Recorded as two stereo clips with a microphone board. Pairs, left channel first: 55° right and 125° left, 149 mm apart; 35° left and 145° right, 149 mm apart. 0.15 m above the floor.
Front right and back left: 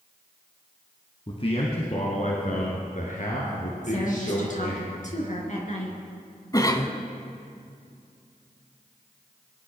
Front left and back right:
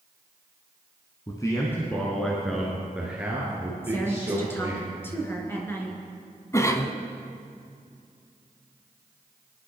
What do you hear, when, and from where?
1.3 s a man speaking: 20° right, 1.9 m; by 4.8 s 75° right, 4.5 m
3.8 s a woman speaking: 40° right, 3.5 m
6.5 s a cough: 15° right, 1.3 m